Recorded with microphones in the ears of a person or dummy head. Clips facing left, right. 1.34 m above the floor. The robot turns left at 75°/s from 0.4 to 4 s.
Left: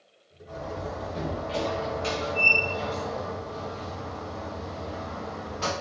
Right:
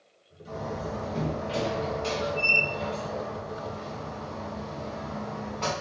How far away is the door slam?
About 0.9 m.